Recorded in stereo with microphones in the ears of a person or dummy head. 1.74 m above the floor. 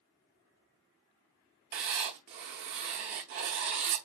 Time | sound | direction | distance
1.7 | writing | 40° right (ahead or behind) | 0.7 m